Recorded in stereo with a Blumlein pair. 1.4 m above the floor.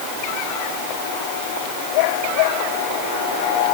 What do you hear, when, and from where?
Only background noise.